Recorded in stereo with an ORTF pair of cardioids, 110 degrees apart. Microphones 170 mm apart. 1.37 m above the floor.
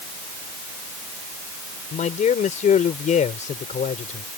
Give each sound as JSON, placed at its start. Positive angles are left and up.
{"t": 1.9, "sound": "a man speaking", "azimuth_deg": 45}